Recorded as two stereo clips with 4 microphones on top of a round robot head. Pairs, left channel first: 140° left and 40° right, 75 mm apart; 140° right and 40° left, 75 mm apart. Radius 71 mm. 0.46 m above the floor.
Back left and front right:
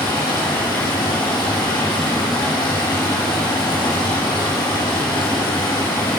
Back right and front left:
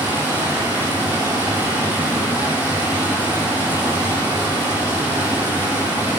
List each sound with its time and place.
0.0 s running water: 105° left, 5.5 m